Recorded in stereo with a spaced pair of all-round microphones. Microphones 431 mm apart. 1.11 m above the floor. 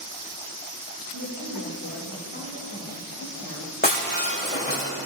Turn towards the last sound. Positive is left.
turn(degrees=20)  # may be behind; listen again after turning